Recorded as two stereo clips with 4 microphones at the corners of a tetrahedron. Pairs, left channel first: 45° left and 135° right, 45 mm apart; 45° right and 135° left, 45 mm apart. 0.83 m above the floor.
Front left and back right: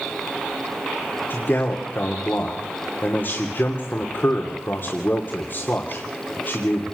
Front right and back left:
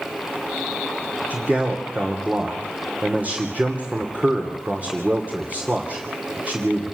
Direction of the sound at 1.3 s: 80° left.